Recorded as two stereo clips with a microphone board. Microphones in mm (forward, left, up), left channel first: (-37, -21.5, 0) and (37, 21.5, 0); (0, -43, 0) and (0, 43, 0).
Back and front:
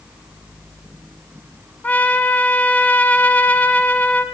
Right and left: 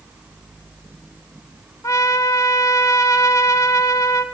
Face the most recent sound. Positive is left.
turn(degrees=-90)